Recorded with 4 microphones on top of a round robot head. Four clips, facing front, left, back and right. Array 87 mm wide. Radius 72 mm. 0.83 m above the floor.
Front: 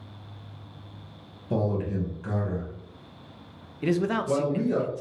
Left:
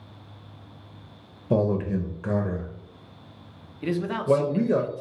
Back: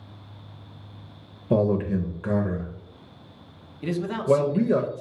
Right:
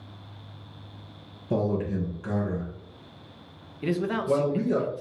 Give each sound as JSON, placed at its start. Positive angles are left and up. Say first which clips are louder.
{"t": 1.5, "sound": "a man speaking", "louder": "left 3 dB, back 6 dB", "azimuth_deg": 140, "distance_m": 0.5}
{"t": 3.8, "sound": "a man speaking", "louder": "left 1 dB, even", "azimuth_deg": -10, "distance_m": 0.5}